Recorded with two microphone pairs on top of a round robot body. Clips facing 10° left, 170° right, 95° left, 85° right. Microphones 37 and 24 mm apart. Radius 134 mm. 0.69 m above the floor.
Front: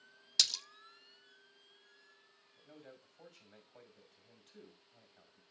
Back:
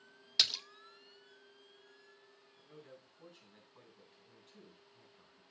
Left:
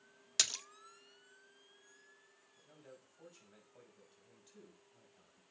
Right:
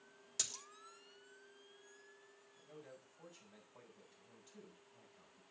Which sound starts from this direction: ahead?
A man speaking, at 2.6 s.